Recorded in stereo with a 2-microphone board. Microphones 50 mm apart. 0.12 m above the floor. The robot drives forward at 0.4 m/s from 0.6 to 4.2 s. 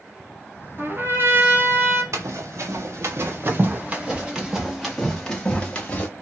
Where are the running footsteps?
85° right, 1.4 m; by 6.1 s 25° left (ahead or behind), 1.3 m.